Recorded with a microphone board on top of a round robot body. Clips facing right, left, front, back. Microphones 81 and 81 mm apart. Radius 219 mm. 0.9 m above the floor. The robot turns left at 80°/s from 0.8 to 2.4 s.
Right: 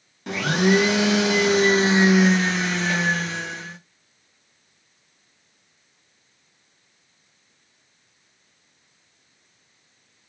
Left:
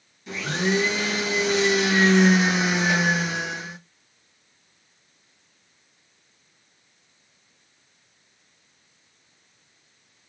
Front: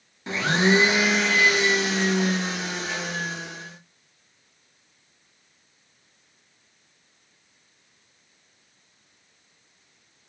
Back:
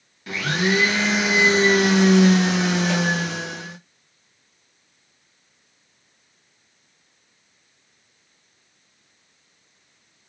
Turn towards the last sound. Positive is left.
turn(degrees=170)